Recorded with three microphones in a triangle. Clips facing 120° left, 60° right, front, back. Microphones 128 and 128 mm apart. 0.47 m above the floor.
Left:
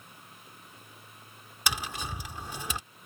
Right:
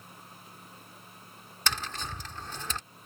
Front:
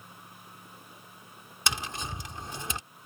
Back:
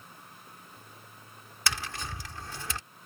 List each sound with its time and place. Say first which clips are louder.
1.7 s tapping: left 1 dB, front 1 dB; 55° left